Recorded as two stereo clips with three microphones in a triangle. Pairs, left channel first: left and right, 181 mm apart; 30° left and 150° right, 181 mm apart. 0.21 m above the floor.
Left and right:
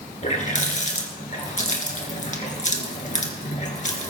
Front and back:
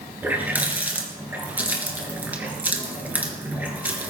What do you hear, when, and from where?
0.2 s a running tap: 130° left, 2.5 m